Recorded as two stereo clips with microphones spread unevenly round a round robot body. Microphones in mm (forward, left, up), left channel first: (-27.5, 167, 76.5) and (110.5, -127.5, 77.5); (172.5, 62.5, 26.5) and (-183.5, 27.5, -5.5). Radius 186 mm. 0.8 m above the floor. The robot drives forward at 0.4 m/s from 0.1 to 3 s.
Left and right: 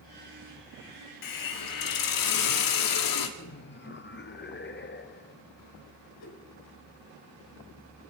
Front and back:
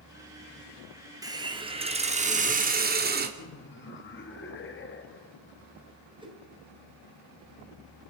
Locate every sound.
1.2 s a hiss: 110° left, 2 m; by 3.3 s 125° left, 2.5 m
3.4 s laughter: 65° left, 1.8 m
6.2 s a whoosh: 110° left, 5 m